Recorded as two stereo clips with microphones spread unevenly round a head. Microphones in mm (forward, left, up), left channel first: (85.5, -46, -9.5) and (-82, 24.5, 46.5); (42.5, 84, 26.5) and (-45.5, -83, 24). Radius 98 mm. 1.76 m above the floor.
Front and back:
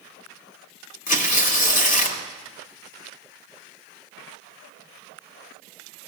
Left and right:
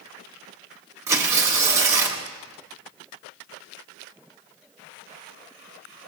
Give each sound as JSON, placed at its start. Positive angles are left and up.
{"t": 1.1, "sound": "tearing paper", "azimuth_deg": -60, "distance_m": 1.1}